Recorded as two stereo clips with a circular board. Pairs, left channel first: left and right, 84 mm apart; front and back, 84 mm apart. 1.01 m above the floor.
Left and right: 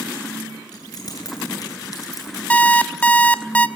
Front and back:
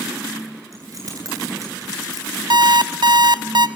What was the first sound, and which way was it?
Keys jangling, 130° left.